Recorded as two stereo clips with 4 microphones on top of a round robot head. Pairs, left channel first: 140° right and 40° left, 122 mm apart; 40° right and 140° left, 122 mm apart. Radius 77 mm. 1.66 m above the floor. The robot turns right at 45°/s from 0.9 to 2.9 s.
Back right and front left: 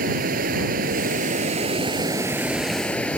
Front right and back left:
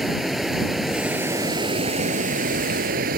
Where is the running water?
50° left; by 3.2 s 140° left.